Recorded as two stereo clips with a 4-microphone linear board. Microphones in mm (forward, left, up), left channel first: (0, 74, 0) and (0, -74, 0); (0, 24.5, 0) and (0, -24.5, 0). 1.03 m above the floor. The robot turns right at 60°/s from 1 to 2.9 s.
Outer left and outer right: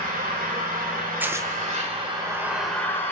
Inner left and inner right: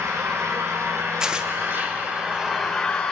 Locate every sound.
0.0 s an engine running: 100° right, 3.5 m; by 3.1 s 15° left, 3.5 m
1.2 s tearing paper: 10° right (ahead or behind), 0.7 m; by 1.5 s 25° right (ahead or behind), 0.7 m